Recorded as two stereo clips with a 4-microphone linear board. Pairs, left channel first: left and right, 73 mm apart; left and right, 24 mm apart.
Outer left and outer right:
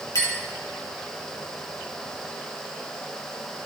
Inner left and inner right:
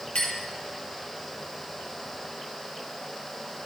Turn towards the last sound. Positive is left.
turn(degrees=50)  # may be behind; listen again after turning